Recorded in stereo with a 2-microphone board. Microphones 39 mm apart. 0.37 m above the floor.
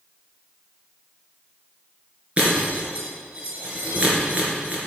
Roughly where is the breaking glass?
Right.